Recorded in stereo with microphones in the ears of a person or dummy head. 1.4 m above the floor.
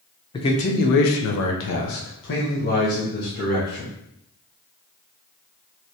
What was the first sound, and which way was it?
A man speaking, 20° left (ahead or behind).